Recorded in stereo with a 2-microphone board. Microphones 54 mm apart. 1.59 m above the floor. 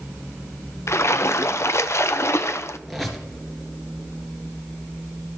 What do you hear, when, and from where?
0.9 s a splash: 55° left (ahead or behind), 0.6 m
2.9 s a squeak: centre (ahead or behind), 2 m